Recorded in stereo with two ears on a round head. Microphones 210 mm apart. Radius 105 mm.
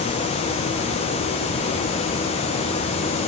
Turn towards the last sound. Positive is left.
No sound to turn to.